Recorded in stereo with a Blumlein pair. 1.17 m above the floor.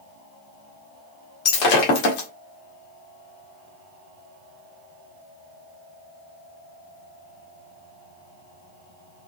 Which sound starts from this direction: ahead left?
Breaking glass, at 1.4 s.